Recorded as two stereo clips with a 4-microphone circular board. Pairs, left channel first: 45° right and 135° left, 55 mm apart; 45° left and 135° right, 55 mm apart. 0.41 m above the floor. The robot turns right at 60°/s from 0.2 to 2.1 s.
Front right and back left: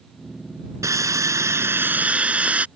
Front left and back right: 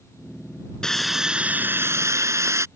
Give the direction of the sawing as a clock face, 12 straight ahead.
8 o'clock.